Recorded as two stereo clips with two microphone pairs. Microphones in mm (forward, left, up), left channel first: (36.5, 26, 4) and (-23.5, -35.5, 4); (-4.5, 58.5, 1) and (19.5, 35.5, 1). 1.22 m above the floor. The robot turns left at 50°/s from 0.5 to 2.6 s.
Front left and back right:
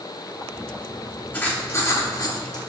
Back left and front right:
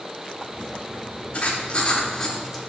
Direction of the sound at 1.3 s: 110° left.